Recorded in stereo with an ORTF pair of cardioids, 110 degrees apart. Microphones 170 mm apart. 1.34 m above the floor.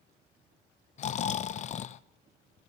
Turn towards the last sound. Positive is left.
turn(degrees=45)